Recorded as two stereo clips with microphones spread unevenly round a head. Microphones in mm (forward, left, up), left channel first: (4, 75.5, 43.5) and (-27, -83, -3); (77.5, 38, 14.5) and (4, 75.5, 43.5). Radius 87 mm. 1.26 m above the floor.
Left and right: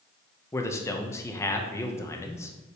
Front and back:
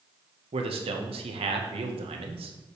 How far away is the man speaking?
About 1.3 m.